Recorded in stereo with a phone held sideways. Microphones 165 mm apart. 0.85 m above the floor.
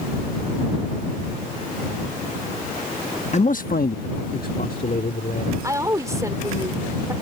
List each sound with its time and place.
3.3 s a man speaking: 45° left (ahead or behind); by 5.5 s 55° left (ahead or behind)
5.6 s a woman speaking: 20° right (ahead or behind)